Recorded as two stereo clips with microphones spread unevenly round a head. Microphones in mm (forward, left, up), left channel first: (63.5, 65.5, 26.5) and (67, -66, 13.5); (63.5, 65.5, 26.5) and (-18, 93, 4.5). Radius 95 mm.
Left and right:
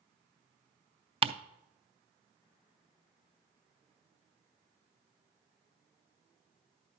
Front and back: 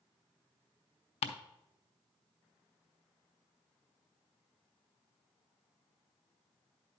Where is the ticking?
40° right, 0.5 m.